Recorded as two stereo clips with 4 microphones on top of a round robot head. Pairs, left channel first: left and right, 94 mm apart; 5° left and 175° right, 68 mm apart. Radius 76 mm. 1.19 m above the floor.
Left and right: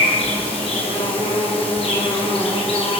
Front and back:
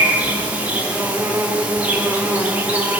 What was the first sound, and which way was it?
An insect, 115° left.